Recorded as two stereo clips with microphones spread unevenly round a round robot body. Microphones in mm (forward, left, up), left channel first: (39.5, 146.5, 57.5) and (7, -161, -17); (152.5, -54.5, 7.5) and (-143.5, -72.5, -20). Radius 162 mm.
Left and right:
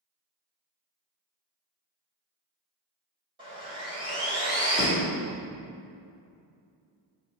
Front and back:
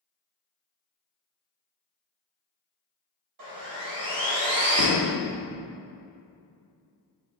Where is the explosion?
30° left, 0.8 m.